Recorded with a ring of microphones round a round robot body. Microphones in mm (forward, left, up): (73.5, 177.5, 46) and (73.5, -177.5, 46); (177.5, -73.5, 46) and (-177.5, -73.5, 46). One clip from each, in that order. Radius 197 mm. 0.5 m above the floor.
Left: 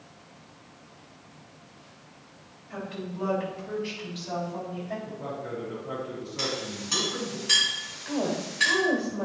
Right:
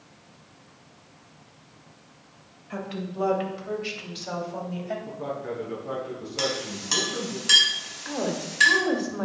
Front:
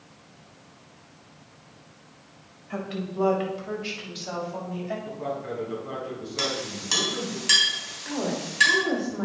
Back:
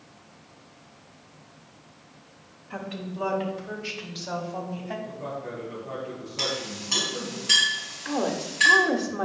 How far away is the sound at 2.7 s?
About 2.5 m.